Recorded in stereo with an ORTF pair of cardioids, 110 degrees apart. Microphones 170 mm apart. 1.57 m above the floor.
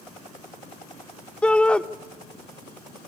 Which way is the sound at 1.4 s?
5° left.